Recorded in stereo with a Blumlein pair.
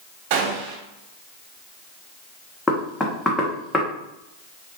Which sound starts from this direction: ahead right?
A gunshot, at 0.3 s.